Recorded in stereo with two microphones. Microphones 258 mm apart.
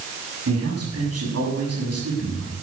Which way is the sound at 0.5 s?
70° right (ahead or behind).